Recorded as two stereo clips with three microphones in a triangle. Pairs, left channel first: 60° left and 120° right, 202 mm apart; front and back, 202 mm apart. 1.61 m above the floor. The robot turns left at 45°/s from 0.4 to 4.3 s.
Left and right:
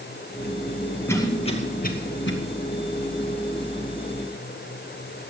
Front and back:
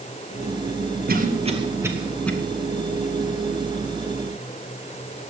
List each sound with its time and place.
1.1 s a cough: 140° left, 2 m; by 2.3 s 80° left, 2 m